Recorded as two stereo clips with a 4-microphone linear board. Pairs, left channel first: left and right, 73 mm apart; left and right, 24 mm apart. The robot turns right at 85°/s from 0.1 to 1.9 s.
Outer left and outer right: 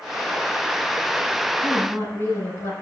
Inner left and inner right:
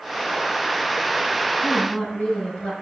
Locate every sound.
1.6 s a woman speaking: 15° left (ahead or behind), 4.5 m; by 2.7 s 35° left (ahead or behind), 4.5 m